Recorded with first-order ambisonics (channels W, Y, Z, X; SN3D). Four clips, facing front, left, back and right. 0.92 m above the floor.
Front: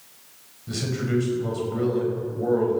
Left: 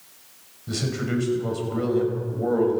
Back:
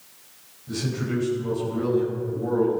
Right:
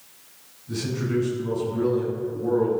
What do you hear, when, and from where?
0.7 s a man speaking: 65° left, 6 m